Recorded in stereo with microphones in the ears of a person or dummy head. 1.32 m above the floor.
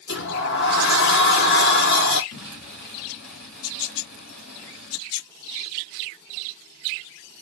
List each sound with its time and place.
0.1 s a sliding door: 50° left (ahead or behind), 0.8 m
2.3 s an explosion: 55° left (ahead or behind), 2.5 m